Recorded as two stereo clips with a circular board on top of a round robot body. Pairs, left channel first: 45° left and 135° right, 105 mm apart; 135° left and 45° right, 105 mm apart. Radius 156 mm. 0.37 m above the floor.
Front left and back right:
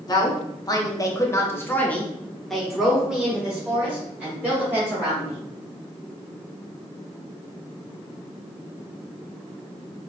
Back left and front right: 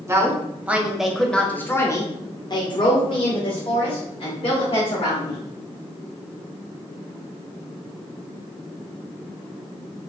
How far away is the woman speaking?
About 1.5 m.